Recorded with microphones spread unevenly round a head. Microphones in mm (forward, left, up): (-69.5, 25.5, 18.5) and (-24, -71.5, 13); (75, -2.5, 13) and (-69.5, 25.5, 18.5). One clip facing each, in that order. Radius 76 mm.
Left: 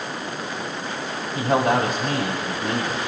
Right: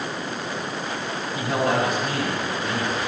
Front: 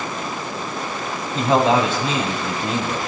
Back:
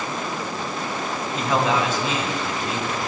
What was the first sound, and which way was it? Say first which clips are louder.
A man speaking: left 3 dB, front 5 dB; 50° left.